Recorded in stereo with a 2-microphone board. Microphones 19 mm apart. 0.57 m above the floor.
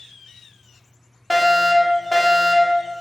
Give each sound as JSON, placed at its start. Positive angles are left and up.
{"t": 1.3, "sound": "a fire alarm", "side_deg": 5, "distance_m": 2.5}